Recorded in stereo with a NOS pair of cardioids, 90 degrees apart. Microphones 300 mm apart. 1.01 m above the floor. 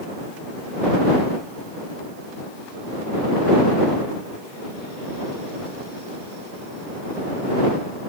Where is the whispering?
I don't hear whispering.